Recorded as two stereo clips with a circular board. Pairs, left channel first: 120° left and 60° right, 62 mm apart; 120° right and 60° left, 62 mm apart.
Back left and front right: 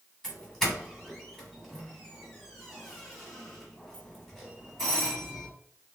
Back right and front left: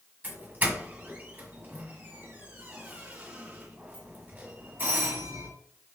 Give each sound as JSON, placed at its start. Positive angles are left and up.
{"t": 0.2, "sound": "a doorbell", "azimuth_deg": 45, "distance_m": 1.7}